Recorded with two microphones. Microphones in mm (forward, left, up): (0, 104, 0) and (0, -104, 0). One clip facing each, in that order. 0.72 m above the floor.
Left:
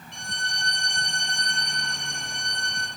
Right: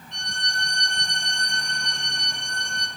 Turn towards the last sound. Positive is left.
turn(degrees=5)  # may be behind; listen again after turning